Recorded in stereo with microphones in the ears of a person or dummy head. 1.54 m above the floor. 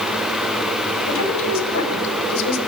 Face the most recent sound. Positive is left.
turn(degrees=80)